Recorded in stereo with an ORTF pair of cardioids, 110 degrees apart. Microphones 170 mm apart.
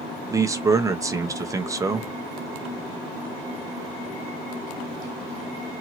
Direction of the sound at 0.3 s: 20° right.